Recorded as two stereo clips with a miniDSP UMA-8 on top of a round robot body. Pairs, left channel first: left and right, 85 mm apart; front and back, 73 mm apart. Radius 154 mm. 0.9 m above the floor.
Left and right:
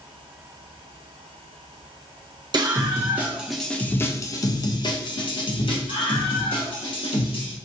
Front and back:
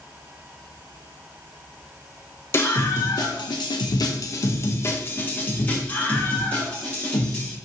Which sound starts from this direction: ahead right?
A scream, at 2.5 s.